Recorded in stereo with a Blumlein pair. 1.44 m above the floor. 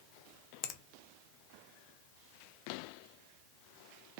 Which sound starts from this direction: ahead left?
A finger snap, at 0.6 s.